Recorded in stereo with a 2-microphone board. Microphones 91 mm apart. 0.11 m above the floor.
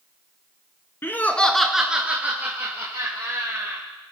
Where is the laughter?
25° left (ahead or behind), 1.2 m; by 3.8 s 30° right (ahead or behind), 3.5 m.